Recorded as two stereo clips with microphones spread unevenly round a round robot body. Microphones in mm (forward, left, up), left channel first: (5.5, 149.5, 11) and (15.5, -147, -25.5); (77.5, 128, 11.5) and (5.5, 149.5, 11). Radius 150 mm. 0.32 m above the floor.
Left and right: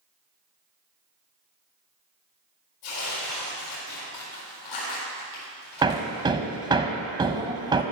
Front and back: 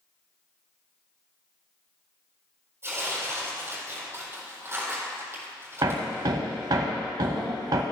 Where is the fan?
No fan in this recording.